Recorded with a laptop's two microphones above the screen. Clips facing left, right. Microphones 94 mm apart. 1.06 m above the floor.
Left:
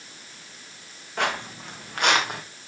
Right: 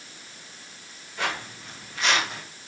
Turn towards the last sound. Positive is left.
turn(degrees=55)  # may be behind; listen again after turning